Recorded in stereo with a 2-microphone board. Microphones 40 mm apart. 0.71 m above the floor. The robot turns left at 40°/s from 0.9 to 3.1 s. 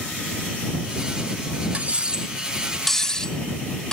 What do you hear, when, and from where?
1.7 s cutlery clinking: 35° right (ahead or behind); by 3.9 s 15° left (ahead or behind)